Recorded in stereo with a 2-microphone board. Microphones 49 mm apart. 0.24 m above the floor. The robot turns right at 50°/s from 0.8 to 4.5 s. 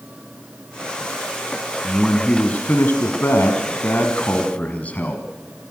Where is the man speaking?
5° left, 2 m; by 5.2 s 135° left, 2 m.